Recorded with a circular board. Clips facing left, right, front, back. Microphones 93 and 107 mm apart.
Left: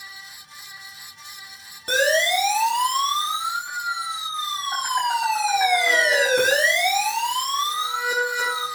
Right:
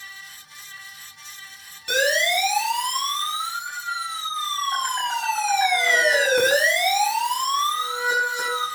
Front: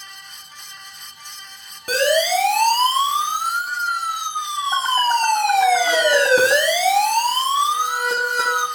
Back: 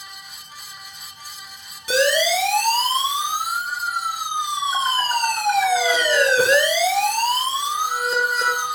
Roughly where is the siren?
Ahead left.